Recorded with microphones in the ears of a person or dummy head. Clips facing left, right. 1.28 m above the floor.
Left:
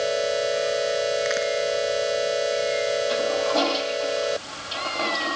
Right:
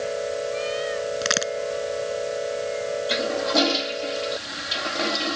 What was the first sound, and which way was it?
A crack, 75° right (ahead or behind).